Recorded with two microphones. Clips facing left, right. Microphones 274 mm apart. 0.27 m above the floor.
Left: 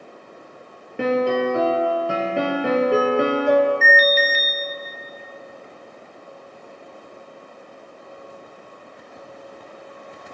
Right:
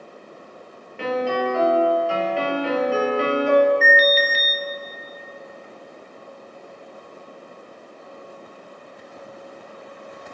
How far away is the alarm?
About 1.2 m.